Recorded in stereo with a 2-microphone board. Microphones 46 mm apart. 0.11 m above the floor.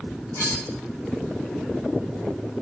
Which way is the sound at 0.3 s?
80° left.